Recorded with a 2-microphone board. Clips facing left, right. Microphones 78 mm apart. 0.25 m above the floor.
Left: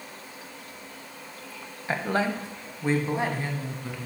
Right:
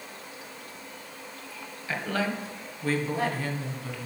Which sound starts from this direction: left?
A woman speaking, at 1.9 s.